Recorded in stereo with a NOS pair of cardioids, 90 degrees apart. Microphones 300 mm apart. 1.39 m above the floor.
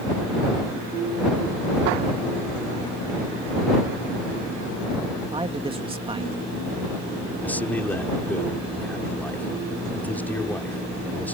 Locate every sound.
5.3 s a man speaking: 20° right
7.4 s a man speaking: 5° left